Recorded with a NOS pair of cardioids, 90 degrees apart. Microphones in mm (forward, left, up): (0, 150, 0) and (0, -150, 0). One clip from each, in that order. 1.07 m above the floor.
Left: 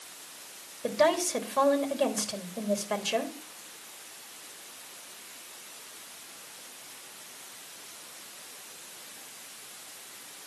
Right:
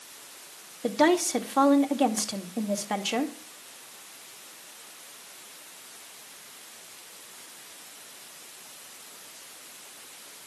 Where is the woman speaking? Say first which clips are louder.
Right 2 dB; 25° right, 2.5 m.